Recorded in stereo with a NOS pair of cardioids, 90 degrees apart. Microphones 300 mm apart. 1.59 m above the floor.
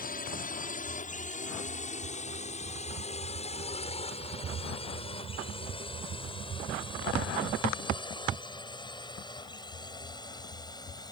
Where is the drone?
30° left; by 11.1 s 15° left.